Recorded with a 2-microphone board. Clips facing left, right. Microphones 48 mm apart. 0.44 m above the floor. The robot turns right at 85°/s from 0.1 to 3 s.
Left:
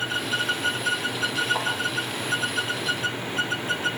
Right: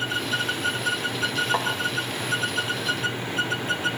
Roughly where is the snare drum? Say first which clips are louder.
Right 2 dB; right.